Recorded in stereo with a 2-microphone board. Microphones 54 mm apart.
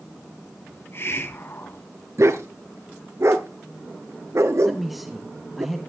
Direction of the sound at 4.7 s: Centre (ahead or behind).